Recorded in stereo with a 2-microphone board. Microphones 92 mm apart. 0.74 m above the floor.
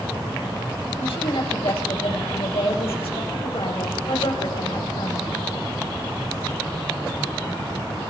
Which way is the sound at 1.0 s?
80° left.